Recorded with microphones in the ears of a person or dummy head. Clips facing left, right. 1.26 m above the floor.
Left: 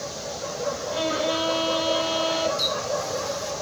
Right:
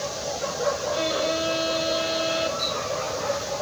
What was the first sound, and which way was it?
A violin, 65° left (ahead or behind).